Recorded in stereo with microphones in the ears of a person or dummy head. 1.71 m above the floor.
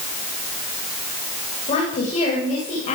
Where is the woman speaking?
40° left (ahead or behind), 9.5 m.